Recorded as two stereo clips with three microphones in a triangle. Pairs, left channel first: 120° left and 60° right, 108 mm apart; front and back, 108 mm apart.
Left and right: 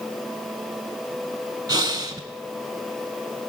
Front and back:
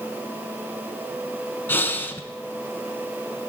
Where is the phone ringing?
I don't hear a phone ringing.